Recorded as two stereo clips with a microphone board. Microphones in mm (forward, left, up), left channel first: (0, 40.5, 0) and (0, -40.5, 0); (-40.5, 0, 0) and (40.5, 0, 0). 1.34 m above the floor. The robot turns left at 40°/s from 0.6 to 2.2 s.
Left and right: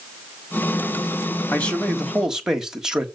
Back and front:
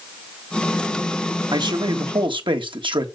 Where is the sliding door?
No sliding door in this recording.